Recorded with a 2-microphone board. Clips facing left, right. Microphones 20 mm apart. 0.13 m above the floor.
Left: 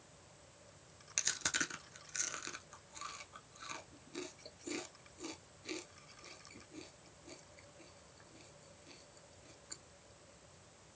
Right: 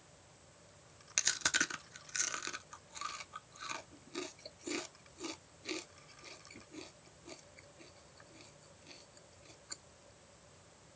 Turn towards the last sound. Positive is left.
turn(degrees=-20)  # may be behind; listen again after turning